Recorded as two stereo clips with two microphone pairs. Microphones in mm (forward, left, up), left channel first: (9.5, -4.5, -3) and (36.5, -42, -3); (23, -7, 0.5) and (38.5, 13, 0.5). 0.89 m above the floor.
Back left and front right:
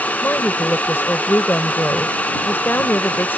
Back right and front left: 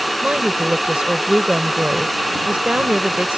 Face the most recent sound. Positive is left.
turn(degrees=85)